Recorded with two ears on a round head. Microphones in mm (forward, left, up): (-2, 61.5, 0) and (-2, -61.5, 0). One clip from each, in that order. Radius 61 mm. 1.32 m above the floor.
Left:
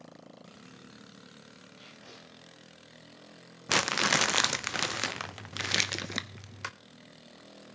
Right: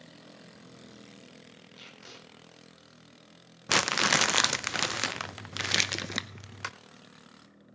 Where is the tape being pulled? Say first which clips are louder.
Right 3 dB; 65° right (ahead or behind), 6 m.